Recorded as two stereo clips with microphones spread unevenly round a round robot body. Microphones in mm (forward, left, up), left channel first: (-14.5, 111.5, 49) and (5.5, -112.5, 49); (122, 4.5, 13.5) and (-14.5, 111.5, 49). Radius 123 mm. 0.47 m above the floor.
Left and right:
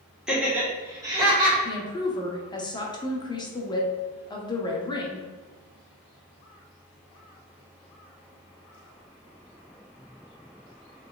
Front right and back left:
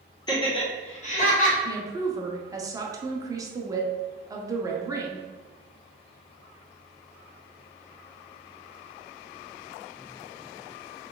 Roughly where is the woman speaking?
Left.